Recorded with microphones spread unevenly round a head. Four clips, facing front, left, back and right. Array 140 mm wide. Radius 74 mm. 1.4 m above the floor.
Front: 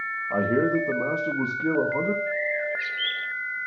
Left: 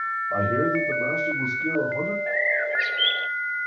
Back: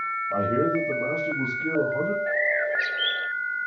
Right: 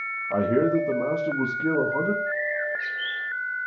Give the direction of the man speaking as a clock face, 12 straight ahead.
1 o'clock.